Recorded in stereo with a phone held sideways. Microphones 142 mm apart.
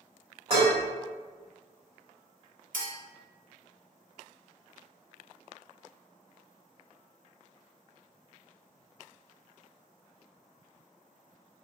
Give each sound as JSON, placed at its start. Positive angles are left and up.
{"t": 0.5, "sound": "dishes clattering", "side_deg": -45, "distance_m": 1.4}
{"t": 2.7, "sound": "a clink", "side_deg": -75, "distance_m": 1.0}